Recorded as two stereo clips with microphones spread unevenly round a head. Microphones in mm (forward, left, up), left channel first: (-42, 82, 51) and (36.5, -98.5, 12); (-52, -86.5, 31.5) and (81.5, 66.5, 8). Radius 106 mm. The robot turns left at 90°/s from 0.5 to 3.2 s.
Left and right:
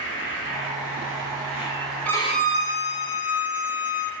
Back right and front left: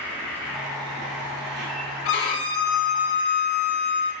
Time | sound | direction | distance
0.0 | an insect | 145° left | 1.8 m
2.0 | a violin | 160° right | 0.6 m